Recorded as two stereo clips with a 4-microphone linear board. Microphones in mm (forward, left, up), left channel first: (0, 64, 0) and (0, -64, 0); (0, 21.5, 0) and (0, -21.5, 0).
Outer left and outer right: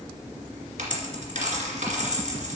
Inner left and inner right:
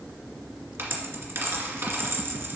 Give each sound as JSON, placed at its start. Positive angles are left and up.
{"t": 0.8, "sound": "a dropped coin", "side_deg": -80, "distance_m": 2.0}